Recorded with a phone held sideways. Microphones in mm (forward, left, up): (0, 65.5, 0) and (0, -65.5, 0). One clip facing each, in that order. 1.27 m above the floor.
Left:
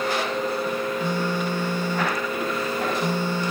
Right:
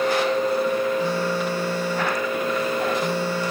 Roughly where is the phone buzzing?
Centre.